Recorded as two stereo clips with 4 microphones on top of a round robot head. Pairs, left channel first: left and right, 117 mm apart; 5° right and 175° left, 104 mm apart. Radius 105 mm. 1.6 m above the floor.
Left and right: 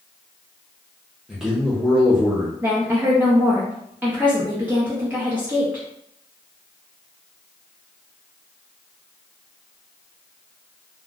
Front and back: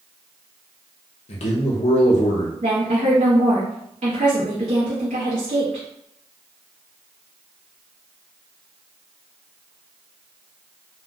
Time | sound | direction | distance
1.3 | a man speaking | 5° right | 0.6 m
2.6 | a woman speaking | 160° right | 0.5 m